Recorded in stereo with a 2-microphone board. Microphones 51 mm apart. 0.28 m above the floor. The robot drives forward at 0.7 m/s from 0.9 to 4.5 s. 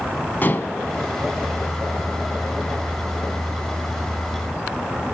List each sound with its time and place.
0.4 s dishes clattering: 40° left (ahead or behind), 1.6 m